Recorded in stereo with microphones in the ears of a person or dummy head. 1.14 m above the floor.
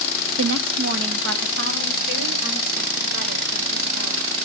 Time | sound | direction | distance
0.4 | a woman speaking | 90° right | 0.6 m